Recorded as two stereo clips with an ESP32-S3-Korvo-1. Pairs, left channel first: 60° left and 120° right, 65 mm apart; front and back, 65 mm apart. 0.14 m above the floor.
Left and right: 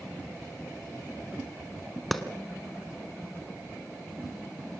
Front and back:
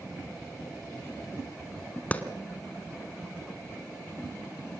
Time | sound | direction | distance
2.1 | a clap | 25° right | 1.5 m